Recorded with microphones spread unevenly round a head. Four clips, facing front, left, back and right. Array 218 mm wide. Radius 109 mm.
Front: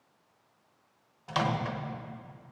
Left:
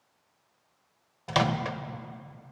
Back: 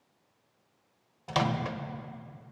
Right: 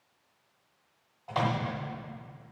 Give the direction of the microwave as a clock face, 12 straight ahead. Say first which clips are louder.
Left 3 dB, back 1 dB; 8 o'clock.